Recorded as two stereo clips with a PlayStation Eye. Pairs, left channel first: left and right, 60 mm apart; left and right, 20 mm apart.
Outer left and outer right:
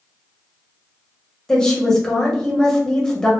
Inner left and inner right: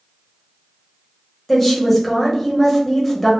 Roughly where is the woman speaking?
Centre.